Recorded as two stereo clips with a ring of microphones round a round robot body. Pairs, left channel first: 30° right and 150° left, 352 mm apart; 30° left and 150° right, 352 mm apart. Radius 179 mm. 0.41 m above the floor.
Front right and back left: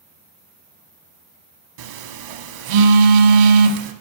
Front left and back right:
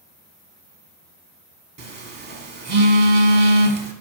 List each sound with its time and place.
1.8 s a phone buzzing: 145° left, 0.7 m